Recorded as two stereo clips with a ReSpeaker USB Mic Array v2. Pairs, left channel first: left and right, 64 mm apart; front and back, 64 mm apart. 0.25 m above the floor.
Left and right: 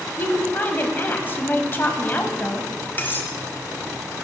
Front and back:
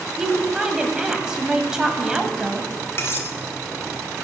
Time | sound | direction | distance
0.2 | a woman speaking | 110° left | 1.1 m
3.0 | cutlery clinking | 35° left | 1.2 m